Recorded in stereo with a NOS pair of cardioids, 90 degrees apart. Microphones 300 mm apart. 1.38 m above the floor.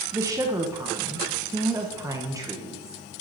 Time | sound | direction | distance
0.1 | a woman speaking | 10° right | 1.2 m